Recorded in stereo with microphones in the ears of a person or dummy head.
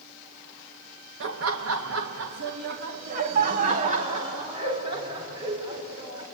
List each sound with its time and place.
1.2 s laughter: 65° right (ahead or behind), 1.3 m; by 6.2 s 30° right (ahead or behind), 4.5 m